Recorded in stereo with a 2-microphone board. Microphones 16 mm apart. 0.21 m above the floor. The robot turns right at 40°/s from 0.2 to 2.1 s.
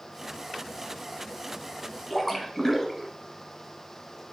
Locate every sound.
2.1 s a splash: 5° right (ahead or behind), 1.1 m